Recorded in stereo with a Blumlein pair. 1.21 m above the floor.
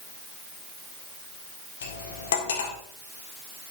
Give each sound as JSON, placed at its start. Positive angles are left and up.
{"t": 1.8, "sound": "cutlery clinking", "azimuth_deg": 60, "distance_m": 1.9}